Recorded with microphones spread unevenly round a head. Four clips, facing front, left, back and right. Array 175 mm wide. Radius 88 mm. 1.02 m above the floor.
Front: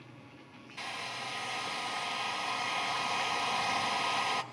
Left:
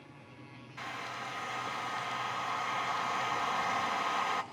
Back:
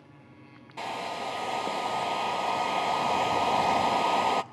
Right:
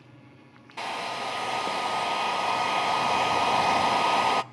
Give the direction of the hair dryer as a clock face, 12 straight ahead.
5 o'clock.